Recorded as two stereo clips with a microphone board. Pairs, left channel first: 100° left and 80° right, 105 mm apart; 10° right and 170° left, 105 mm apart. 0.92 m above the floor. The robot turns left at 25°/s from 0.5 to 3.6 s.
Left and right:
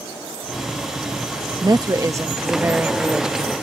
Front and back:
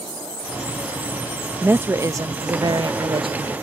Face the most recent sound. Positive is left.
turn(degrees=-170)